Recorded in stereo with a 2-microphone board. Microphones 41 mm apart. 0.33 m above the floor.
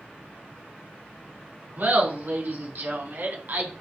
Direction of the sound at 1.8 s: 65° right (ahead or behind).